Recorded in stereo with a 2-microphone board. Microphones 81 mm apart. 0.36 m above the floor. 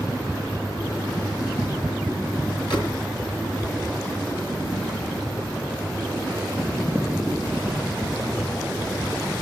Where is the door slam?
60° left (ahead or behind), 5 m.